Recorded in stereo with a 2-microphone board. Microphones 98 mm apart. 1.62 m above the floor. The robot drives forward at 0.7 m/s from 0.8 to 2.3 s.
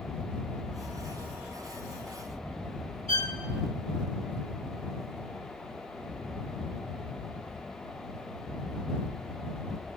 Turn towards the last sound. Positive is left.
turn(degrees=-70)  # may be behind; listen again after turning